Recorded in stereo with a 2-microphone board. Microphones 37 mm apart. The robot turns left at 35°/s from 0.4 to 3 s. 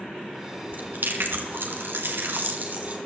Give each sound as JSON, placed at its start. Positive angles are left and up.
{"t": 0.7, "sound": "chewing", "azimuth_deg": -55, "distance_m": 3.0}